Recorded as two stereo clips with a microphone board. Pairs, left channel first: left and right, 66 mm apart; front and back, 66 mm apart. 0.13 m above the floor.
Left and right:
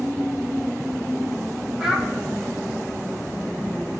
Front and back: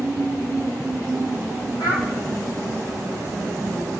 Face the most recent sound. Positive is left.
turn(degrees=-5)